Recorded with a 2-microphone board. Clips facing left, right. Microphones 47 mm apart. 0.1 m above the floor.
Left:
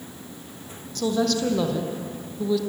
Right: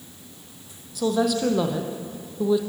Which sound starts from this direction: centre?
A woman speaking, at 0.9 s.